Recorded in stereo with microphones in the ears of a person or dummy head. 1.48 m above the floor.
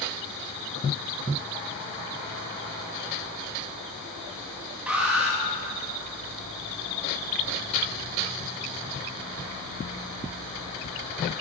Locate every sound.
4.9 s an alarm: 10° right (ahead or behind), 3.5 m